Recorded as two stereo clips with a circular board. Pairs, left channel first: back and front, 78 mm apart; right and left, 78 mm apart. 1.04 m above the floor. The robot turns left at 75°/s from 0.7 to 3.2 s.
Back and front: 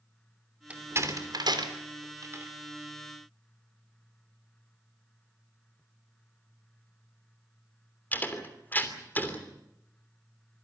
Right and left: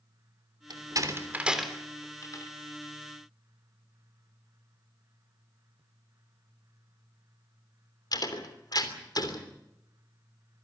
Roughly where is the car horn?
No car horn in this recording.